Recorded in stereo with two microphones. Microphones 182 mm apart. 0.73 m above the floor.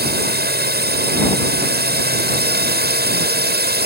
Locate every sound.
0.0 s a drone: 60° right (ahead or behind)